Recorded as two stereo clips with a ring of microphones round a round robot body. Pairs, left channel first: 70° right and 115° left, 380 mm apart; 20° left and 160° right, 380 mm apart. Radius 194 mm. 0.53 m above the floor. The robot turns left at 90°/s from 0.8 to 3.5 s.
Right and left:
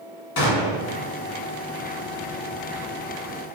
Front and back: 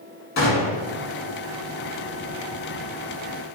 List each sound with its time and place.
0.4 s a gunshot: 35° right, 0.9 m; by 0.9 s 40° right, 0.9 m